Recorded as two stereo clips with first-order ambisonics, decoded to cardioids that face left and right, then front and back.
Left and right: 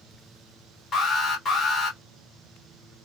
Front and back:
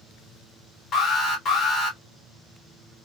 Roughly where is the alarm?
Ahead left.